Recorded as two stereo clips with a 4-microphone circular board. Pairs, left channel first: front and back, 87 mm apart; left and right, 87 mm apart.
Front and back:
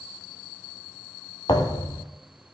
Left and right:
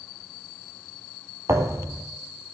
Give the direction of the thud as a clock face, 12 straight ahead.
1 o'clock.